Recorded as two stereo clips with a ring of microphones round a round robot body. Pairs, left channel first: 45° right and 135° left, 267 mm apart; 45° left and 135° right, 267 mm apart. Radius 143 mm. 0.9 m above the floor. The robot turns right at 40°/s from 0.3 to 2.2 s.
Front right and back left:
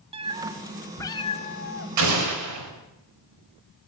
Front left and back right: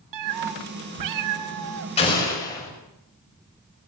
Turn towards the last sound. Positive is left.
turn(degrees=120)